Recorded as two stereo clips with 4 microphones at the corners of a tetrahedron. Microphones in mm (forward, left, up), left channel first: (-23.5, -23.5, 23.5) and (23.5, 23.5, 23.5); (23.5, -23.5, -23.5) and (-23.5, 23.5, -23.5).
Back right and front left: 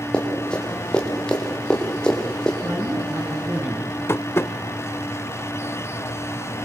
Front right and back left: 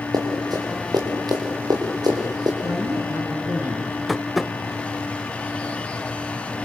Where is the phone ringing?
No phone ringing in this recording.